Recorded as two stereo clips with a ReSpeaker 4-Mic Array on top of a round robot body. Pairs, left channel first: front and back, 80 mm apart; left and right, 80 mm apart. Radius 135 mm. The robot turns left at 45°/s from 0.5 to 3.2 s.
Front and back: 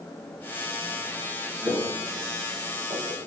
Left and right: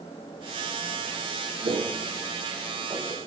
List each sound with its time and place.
1.6 s footsteps: 105° right, 3.5 m; by 3.3 s 165° right, 5 m